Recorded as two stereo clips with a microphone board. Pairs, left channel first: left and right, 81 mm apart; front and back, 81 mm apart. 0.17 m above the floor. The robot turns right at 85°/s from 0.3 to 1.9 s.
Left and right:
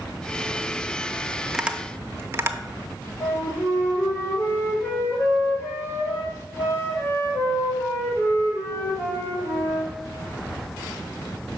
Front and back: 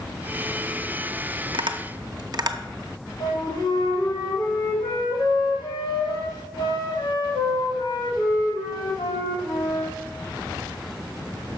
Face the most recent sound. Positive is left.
turn(degrees=30)